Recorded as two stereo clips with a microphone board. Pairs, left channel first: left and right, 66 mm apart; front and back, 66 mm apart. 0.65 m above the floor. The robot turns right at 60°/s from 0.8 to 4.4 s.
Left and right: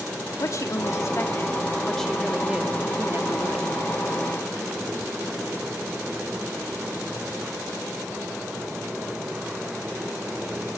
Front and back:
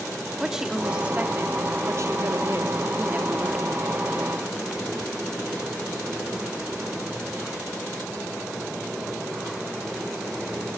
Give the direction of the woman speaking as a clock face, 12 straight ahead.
9 o'clock.